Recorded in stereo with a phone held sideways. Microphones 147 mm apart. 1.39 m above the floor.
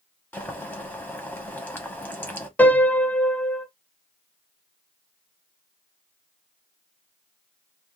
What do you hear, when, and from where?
0.3 s boiling: 15° left (ahead or behind), 0.9 m
2.6 s a piano: 10° left (ahead or behind), 0.6 m